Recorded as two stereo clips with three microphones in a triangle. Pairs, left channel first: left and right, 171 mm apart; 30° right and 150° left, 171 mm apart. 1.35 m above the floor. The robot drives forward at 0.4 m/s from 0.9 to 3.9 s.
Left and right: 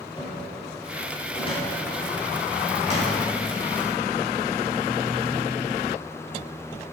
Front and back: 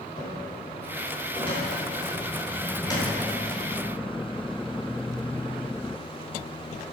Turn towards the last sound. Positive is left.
turn(degrees=40)